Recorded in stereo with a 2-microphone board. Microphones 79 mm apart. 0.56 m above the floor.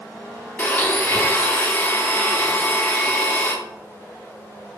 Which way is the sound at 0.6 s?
20° left (ahead or behind).